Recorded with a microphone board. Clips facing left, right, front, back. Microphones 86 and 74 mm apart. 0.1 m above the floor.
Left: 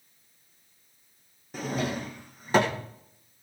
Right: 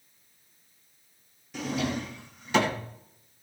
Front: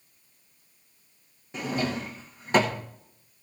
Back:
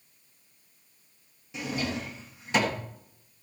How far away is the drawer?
About 2 m.